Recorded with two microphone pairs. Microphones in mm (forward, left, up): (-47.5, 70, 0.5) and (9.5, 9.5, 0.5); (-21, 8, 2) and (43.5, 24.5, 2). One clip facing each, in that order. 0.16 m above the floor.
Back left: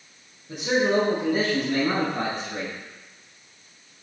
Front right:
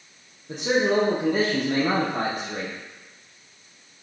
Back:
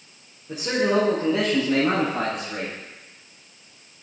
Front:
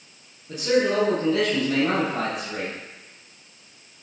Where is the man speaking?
90° right, 5 m; by 2.8 s 70° right, 5 m.